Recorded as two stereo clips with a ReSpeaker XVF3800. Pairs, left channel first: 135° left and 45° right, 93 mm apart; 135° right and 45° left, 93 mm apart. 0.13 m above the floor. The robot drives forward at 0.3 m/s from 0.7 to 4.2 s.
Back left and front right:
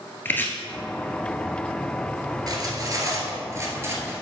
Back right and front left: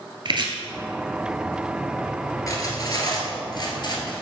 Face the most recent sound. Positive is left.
turn(degrees=-110)